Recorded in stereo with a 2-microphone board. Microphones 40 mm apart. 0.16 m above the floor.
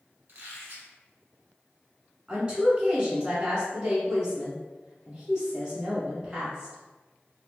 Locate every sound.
0.3 s a squeak: 45° right (ahead or behind), 1.2 m
2.3 s a woman speaking: 20° right (ahead or behind), 1.3 m